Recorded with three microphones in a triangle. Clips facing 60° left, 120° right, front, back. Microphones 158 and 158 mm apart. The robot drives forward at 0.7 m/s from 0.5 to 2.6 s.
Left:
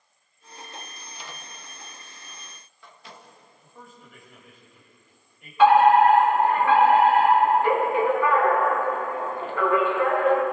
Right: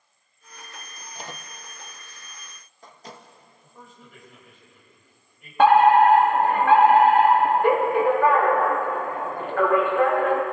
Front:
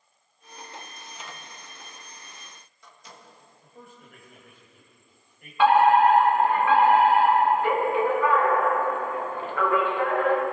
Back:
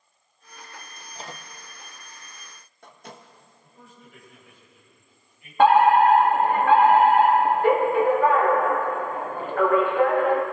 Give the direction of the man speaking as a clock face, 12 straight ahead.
1 o'clock.